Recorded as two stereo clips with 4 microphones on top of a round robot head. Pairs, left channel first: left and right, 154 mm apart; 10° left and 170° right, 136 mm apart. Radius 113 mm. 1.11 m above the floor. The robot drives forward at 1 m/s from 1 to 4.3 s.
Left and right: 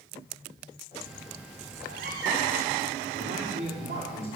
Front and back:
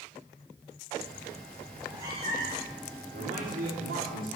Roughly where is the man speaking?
Behind right.